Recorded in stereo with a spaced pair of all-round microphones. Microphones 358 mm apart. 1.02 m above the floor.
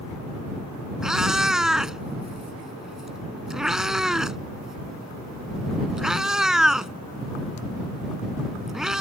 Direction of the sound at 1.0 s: Centre (ahead or behind).